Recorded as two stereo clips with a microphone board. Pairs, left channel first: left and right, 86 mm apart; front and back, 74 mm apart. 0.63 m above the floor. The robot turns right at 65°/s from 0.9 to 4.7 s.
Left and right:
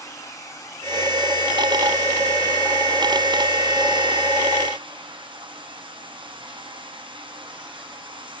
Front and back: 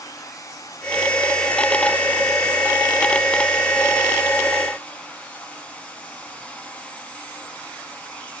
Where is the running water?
40° left, 6 m; by 8.4 s 75° right, 6 m.